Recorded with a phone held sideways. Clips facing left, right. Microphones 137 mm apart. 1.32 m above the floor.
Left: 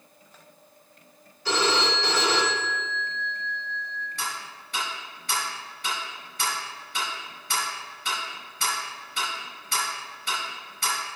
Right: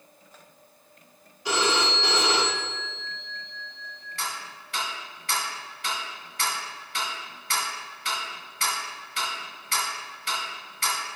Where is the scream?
No scream in this recording.